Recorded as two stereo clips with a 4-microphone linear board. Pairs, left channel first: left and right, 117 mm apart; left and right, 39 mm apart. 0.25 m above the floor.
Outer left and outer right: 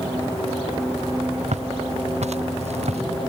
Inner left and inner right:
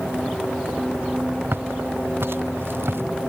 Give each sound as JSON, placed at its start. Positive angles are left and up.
{"t": 1.5, "sound": "footsteps", "side_deg": -75}